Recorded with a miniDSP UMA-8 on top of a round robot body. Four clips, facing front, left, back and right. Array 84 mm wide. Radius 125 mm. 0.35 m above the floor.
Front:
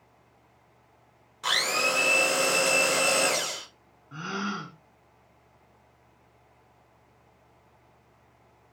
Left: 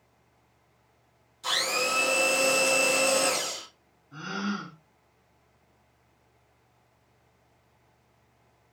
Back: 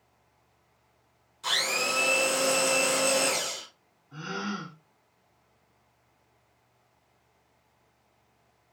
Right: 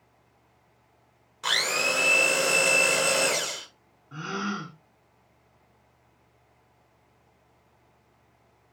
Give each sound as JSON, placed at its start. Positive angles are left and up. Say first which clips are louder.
{"t": 1.4, "sound": "a blender", "louder": "right 1 dB, front 3 dB", "azimuth_deg": -55, "distance_m": 1.0}
{"t": 4.1, "sound": "a gasp", "louder": "right 1 dB, front 2 dB", "azimuth_deg": -55, "distance_m": 0.8}